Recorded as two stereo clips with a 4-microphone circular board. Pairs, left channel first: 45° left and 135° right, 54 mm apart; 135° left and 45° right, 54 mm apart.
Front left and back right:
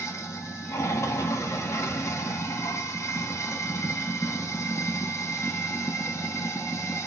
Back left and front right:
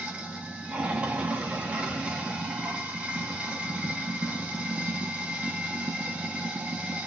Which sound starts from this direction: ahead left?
Running water, at 0.0 s.